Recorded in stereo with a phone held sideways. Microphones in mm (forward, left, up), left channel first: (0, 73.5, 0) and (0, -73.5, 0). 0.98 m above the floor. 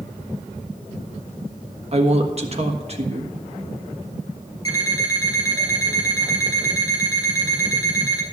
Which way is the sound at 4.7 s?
25° left (ahead or behind).